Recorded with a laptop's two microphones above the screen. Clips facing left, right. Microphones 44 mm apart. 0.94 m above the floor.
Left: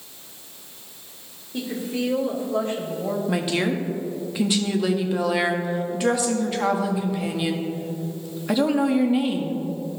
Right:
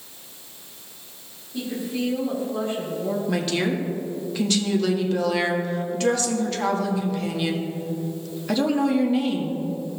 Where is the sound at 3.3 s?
10° left (ahead or behind), 1.5 m.